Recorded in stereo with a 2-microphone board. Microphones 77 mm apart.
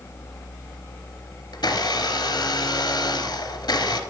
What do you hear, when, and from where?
1.5 s a blender: 70° left (ahead or behind), 0.6 m